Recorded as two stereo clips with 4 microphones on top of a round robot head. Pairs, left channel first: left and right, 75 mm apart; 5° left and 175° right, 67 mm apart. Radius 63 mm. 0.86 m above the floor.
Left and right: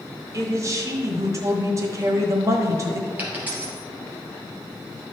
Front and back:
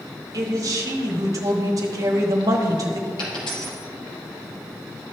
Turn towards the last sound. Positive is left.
turn(degrees=-25)